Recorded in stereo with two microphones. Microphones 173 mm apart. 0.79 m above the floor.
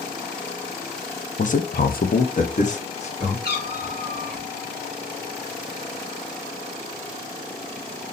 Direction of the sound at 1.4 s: 45° left (ahead or behind).